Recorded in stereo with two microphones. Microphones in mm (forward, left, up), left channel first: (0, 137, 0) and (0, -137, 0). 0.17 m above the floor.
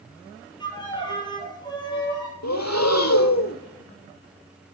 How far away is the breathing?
About 0.8 m.